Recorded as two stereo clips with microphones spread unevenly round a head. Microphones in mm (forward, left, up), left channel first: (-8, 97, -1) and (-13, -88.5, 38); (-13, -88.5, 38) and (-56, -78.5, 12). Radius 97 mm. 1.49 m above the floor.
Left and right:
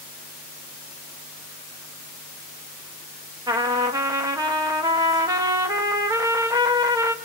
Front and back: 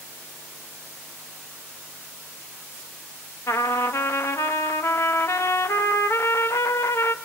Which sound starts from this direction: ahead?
A trumpet, at 3.5 s.